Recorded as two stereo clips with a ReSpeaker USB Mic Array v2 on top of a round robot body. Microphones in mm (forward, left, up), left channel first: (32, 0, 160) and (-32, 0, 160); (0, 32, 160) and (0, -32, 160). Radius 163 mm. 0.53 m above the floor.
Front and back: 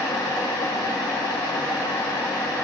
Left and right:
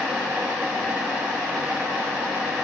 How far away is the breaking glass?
No breaking glass in this recording.